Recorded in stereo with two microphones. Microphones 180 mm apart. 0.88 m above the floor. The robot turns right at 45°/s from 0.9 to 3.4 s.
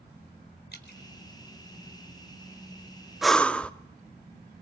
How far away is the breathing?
About 0.6 m.